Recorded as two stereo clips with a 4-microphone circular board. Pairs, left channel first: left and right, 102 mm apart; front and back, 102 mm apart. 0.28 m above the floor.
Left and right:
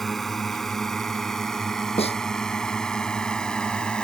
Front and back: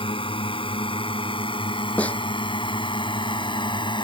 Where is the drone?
5° left; by 4.0 s 10° left.